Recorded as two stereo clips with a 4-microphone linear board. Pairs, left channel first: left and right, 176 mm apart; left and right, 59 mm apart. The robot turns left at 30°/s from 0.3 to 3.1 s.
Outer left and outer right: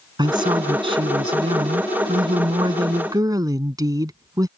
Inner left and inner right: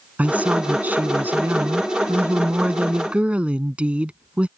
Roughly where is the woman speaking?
Ahead right.